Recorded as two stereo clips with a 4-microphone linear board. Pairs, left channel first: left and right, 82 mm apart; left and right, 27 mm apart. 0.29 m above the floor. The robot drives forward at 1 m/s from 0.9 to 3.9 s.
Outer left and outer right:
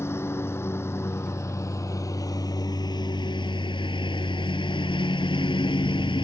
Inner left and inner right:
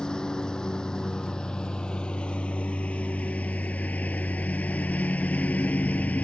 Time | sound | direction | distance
0.0 | a lawn mower | 30° left (ahead or behind) | ?